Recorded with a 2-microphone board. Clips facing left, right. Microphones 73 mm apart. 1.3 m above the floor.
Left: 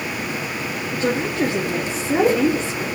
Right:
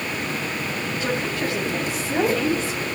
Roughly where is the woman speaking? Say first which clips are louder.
Left 6 dB; left.